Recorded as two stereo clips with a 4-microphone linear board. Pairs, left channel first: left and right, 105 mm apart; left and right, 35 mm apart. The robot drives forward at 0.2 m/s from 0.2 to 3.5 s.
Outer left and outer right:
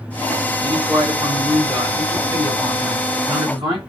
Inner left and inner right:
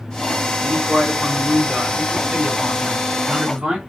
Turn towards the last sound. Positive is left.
turn(degrees=-45)  # may be behind; listen again after turning